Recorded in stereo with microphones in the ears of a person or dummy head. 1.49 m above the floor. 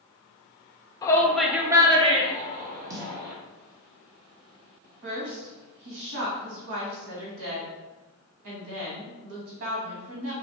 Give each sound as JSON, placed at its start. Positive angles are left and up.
{"t": 1.0, "sound": "a shout", "side_deg": 20, "distance_m": 0.7}
{"t": 2.9, "sound": "a snare drum", "side_deg": -20, "distance_m": 0.8}
{"t": 5.0, "sound": "a woman speaking", "side_deg": -65, "distance_m": 1.0}